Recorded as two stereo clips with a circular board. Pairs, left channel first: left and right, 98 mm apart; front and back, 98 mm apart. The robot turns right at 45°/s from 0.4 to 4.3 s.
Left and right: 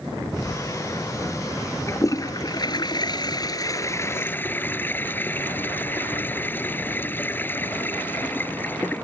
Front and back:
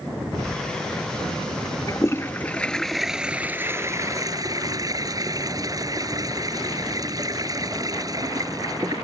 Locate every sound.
1.9 s a toilet flushing: 40° left; by 9.0 s 150° left